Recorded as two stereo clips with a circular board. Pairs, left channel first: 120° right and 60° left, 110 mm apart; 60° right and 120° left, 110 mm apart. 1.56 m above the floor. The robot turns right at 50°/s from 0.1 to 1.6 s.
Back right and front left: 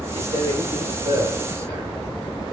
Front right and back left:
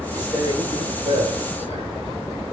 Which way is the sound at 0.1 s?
55° left.